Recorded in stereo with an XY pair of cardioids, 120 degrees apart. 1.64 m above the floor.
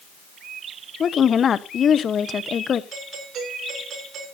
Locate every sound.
1.0 s a woman speaking: 40° left, 1.0 m
2.9 s a doorbell: 55° right, 8 m